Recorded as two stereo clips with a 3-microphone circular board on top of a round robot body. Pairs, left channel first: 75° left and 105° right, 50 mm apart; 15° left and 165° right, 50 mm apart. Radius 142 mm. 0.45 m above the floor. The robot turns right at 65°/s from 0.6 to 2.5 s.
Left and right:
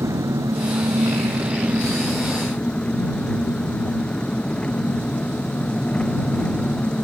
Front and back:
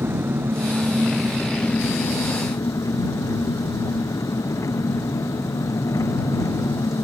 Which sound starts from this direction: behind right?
An engine running, at 0.0 s.